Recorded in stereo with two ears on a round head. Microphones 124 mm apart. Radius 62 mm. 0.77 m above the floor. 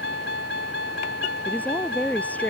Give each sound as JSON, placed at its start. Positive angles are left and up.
{"t": 0.0, "sound": "a vehicle", "side_deg": 85}
{"t": 1.4, "sound": "a woman speaking", "side_deg": 10}